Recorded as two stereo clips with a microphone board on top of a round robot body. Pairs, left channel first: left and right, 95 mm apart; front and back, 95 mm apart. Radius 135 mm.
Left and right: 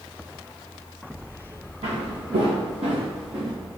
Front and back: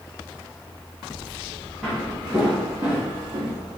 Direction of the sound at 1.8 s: 80° right.